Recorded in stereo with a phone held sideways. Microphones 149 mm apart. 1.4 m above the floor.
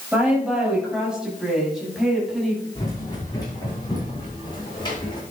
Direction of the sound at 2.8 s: 30° left (ahead or behind).